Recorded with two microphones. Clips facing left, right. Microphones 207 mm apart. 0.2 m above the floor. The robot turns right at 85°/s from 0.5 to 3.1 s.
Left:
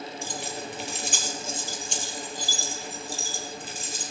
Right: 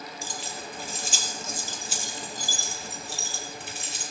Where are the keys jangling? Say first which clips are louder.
Left 4 dB; 60° left (ahead or behind), 3.5 m; by 4.0 s 70° right (ahead or behind), 3.5 m.